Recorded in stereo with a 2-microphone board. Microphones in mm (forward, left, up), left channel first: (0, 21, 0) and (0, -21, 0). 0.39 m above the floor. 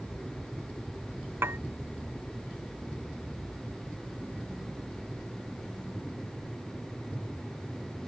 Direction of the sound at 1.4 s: 70° right (ahead or behind).